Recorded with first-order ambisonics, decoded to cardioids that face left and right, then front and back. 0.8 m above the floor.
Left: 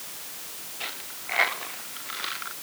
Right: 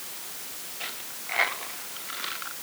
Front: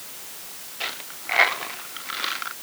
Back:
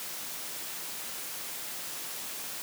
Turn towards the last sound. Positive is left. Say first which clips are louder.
# left 2 dB, front 10 dB
turn(degrees=5)